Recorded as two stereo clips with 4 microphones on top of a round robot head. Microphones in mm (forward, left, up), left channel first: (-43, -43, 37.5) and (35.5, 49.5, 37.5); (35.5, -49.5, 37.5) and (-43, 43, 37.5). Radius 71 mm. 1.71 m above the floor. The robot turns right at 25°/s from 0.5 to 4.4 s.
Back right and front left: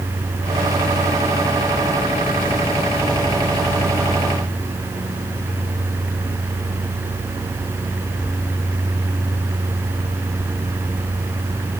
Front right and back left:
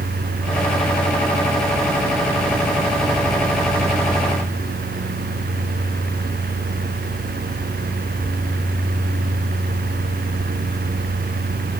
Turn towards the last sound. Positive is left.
No sound to turn to.